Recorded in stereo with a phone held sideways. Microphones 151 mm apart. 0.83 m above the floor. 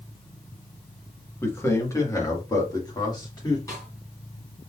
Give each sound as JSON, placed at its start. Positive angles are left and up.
{"t": 1.4, "sound": "a man speaking", "side_deg": 15, "distance_m": 1.5}
{"t": 3.7, "sound": "a snare drum", "side_deg": 20, "distance_m": 3.0}